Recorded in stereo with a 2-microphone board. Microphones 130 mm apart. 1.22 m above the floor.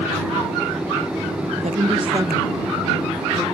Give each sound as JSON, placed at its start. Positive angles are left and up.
{"t": 1.6, "sound": "a woman speaking", "side_deg": -65}